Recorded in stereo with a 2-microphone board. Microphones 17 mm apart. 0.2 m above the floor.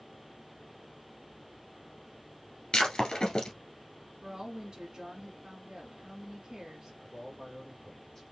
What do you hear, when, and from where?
2.7 s breaking glass: 50° left (ahead or behind), 1.4 m
4.2 s a woman speaking: 30° right (ahead or behind), 1.6 m
7.0 s a man speaking: 15° left (ahead or behind), 3 m